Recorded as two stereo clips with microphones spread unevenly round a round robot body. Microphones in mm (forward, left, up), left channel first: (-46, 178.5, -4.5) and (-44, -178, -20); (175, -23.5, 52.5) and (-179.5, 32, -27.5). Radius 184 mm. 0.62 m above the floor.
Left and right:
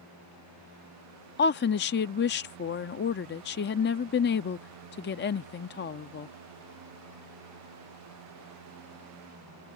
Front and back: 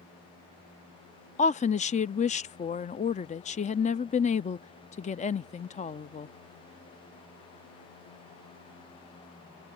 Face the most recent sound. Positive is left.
turn(degrees=70)